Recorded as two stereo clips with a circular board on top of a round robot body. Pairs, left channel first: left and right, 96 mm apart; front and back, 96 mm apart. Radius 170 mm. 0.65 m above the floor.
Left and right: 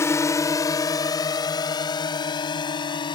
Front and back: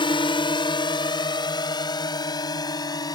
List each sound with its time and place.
0.0 s a drone: 30° left; by 3.2 s 50° left